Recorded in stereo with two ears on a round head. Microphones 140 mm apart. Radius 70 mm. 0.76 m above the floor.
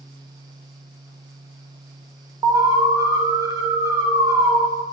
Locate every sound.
2.4 s an alarm: 25° right (ahead or behind), 0.9 m